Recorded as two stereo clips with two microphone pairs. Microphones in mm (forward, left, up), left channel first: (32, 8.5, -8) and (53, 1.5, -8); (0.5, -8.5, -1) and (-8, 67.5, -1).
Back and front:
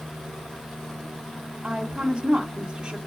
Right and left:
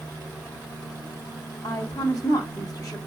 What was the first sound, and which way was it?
A woman speaking, 60° right.